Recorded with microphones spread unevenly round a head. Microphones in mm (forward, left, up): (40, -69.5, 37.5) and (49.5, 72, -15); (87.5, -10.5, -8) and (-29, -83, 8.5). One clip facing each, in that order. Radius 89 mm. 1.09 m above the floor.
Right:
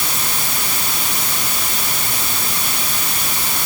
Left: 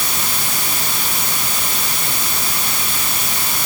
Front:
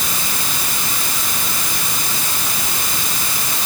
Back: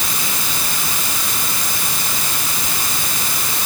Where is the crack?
I don't hear a crack.